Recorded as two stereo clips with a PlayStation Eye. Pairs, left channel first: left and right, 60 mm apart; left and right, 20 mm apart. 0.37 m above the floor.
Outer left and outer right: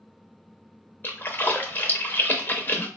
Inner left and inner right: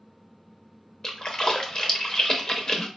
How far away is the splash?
About 0.6 m.